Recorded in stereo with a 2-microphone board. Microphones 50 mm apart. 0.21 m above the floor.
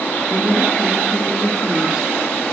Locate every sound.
0.3 s a woman speaking: 20° right (ahead or behind), 2 m